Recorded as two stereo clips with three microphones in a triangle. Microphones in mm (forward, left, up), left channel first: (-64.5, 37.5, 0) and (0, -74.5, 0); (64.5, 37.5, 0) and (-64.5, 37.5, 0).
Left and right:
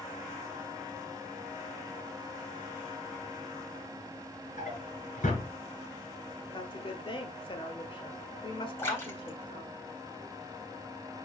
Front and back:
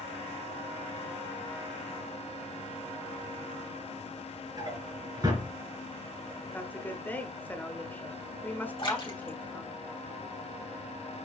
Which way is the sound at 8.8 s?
50° left.